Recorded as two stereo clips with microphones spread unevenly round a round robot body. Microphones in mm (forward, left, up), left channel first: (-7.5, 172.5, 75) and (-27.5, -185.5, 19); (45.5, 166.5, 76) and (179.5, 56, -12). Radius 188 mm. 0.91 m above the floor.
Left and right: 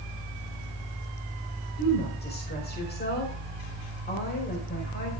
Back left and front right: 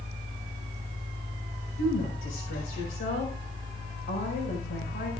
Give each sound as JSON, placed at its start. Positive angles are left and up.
{"t": 1.8, "sound": "a woman speaking", "azimuth_deg": 155, "distance_m": 5.0}